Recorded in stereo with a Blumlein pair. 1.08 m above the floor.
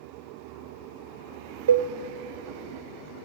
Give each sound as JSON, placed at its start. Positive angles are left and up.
{"t": 1.7, "sound": "a cowbell", "azimuth_deg": -60, "distance_m": 0.5}